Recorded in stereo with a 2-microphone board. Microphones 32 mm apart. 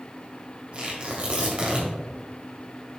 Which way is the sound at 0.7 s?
35° right (ahead or behind).